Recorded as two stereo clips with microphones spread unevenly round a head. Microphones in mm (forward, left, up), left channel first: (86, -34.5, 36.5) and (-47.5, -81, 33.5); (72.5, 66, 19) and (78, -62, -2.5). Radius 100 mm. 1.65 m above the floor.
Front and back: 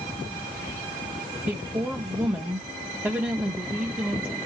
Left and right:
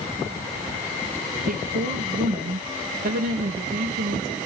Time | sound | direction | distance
1.5 | a woman speaking | 85° right | 0.9 m